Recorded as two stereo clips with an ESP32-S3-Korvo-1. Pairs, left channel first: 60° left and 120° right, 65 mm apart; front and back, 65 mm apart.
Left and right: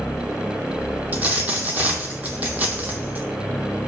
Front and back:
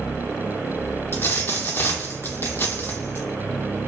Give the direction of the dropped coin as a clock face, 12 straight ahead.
2 o'clock.